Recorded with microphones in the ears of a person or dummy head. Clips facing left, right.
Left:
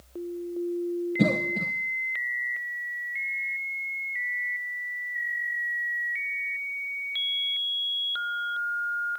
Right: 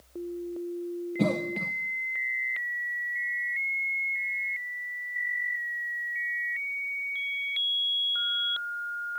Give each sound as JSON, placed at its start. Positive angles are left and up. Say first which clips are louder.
{"t": 1.2, "sound": "a cough", "louder": "even", "side_deg": 15, "distance_m": 1.0}